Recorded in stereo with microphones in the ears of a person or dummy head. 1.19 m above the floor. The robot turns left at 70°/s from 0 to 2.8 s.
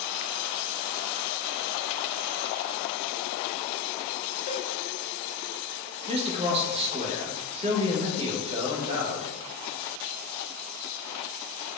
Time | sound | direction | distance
4.5 | a cowbell | 40° left (ahead or behind) | 0.9 m
6.1 | a man speaking | 30° right (ahead or behind) | 0.9 m